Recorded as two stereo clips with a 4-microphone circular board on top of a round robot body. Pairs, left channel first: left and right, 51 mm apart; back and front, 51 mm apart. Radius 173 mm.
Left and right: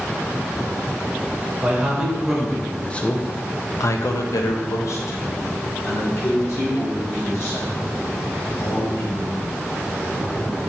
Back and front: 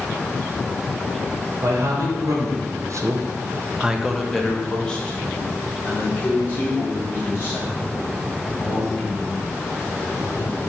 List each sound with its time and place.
1.6 s a man speaking: 15° right, 1.1 m; by 9.5 s 130° left, 3.5 m